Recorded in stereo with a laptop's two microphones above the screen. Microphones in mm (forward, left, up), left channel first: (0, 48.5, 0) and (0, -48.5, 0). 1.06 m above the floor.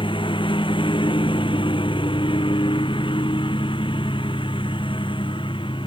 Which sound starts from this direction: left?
A lawn mower, at 0.0 s.